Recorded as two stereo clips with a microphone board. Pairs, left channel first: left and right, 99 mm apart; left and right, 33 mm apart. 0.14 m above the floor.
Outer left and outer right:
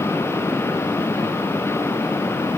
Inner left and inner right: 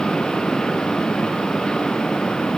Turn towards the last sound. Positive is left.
No sound to turn to.